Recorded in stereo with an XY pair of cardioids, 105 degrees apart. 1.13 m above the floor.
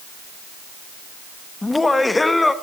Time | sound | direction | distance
1.6 | laughter | 15° left | 1.1 m